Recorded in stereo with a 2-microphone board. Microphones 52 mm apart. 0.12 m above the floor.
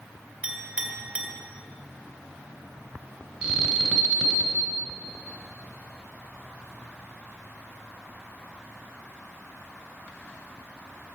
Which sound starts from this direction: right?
A clink, at 0.4 s.